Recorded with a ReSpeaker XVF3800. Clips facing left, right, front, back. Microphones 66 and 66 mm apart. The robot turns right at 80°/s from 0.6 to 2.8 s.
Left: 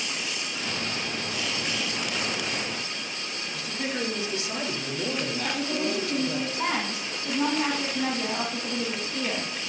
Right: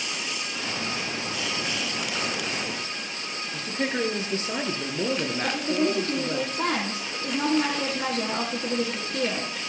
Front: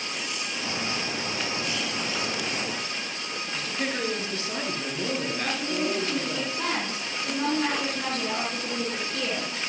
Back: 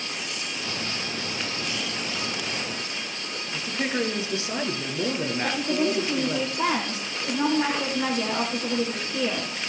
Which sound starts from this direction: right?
A woman speaking, at 5.4 s.